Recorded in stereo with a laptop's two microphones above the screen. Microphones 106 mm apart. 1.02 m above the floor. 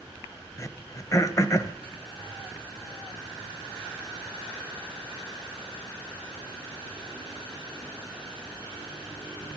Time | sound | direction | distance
0.6 | throat clearing | 30° left (ahead or behind) | 0.9 m